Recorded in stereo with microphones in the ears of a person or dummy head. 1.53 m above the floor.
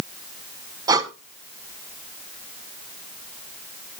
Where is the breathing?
25° right (ahead or behind), 1.0 m.